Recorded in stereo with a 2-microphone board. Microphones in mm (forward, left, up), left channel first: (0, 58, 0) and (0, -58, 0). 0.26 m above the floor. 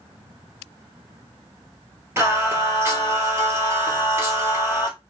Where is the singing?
25° right (ahead or behind), 1.2 m.